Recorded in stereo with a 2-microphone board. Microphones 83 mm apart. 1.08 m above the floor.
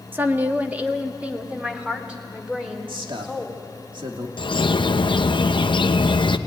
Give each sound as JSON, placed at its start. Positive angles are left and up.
{"t": 0.1, "sound": "a woman speaking", "side_deg": -25, "distance_m": 1.1}
{"t": 2.9, "sound": "a man speaking", "side_deg": -80, "distance_m": 2.5}
{"t": 4.4, "sound": "a bird", "side_deg": 75, "distance_m": 0.7}